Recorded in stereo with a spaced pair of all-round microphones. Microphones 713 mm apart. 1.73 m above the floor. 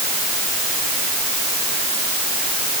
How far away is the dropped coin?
I don't hear a dropped coin.